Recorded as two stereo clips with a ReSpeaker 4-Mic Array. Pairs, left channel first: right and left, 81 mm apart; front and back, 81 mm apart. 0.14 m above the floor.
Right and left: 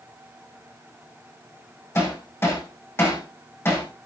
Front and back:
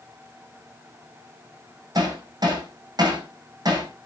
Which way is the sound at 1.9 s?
150° right.